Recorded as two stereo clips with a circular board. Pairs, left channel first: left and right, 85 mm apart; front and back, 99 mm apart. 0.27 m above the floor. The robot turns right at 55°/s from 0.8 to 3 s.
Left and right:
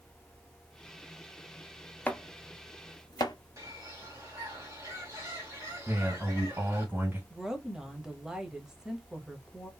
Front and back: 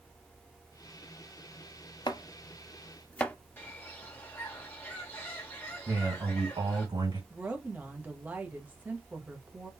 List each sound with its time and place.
2.1 s chopping: 20° left, 0.6 m; by 3.4 s 75° left, 0.6 m
3.6 s a bird: 60° right, 1.7 m
5.9 s a man speaking: 150° right, 2.5 m
7.3 s a woman speaking: 160° right, 0.9 m